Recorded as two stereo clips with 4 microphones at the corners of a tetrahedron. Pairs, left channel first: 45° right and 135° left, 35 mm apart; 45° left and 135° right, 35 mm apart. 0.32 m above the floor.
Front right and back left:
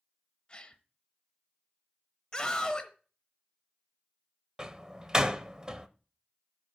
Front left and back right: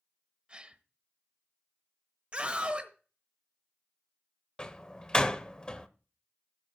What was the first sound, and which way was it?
A gasp, 95° right.